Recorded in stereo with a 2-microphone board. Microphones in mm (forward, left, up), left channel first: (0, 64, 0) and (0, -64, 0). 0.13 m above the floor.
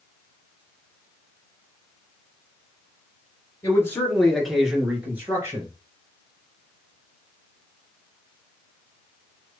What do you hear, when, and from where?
3.6 s a man speaking: 25° left (ahead or behind), 1.9 m; by 5.7 s 25° right (ahead or behind), 2.5 m